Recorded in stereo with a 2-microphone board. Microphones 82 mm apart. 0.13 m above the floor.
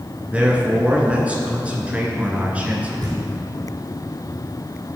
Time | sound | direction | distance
0.3 | a man speaking | 15° right (ahead or behind) | 2 m
3.0 | knocking | 55° right (ahead or behind) | 3 m